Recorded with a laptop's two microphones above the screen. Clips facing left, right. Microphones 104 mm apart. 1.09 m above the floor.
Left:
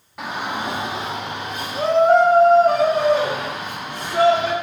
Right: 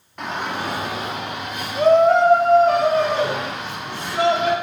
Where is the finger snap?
I don't hear a finger snap.